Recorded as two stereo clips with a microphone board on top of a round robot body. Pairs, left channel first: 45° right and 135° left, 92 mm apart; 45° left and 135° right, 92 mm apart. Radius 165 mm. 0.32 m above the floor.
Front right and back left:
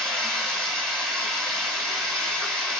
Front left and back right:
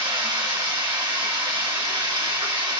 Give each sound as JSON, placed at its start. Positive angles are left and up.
{"t": 0.0, "sound": "running water", "azimuth_deg": -165, "distance_m": 1.9}